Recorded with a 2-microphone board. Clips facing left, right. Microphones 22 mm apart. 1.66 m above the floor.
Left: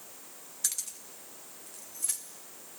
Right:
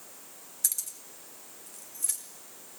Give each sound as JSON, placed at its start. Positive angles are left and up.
{"t": 0.6, "sound": "keys jangling", "side_deg": 20, "distance_m": 1.8}